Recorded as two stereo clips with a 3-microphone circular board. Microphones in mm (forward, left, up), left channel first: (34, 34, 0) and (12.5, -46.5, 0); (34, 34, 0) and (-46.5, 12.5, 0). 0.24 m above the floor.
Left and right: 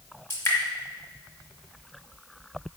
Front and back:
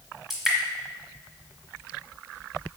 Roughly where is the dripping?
Left.